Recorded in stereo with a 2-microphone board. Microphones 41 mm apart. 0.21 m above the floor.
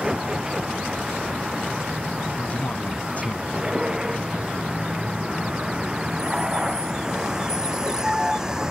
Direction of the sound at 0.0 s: 20° right (ahead or behind).